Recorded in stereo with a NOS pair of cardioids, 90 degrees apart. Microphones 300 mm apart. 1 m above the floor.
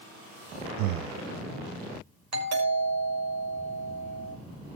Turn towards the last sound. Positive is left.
turn(degrees=-65)